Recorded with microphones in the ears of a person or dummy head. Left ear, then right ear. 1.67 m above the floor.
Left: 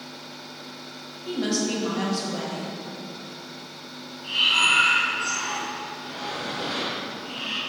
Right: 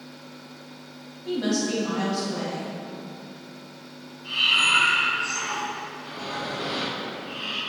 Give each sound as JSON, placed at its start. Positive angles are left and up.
{"t": 1.2, "sound": "a woman speaking", "side_deg": 10, "distance_m": 0.5}
{"t": 4.2, "sound": "breathing", "side_deg": 55, "distance_m": 1.2}